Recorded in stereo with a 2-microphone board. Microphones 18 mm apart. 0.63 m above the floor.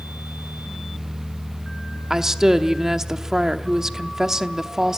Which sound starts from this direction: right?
A woman speaking, at 2.1 s.